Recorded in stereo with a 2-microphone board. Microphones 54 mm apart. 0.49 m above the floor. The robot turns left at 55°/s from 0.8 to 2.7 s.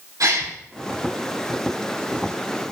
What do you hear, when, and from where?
0.2 s a gasp: 80° right, 3.5 m